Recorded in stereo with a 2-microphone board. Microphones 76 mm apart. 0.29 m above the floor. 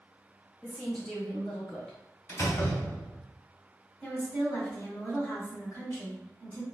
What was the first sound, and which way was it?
A woman speaking, 10° left (ahead or behind).